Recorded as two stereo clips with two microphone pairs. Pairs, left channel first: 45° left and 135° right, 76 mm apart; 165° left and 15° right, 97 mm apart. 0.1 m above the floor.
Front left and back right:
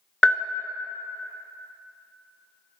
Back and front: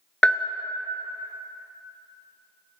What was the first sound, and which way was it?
A bell, 100° left.